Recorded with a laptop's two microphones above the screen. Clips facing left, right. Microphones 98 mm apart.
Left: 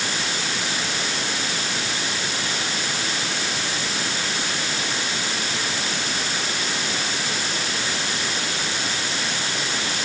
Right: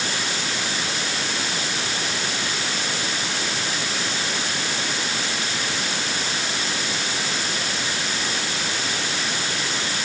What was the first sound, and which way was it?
Only background noise.